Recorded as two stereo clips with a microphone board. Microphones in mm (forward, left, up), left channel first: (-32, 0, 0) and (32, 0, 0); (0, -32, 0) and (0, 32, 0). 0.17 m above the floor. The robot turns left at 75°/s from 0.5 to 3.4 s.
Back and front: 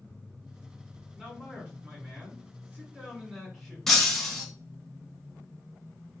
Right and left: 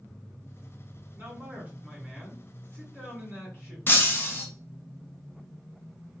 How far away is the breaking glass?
About 0.8 m.